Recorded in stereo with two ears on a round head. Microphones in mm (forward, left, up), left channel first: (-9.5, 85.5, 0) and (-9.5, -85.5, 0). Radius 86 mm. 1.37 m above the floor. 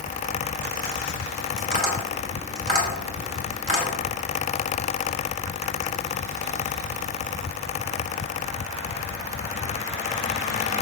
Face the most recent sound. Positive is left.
turn(degrees=-35)  # may be behind; listen again after turning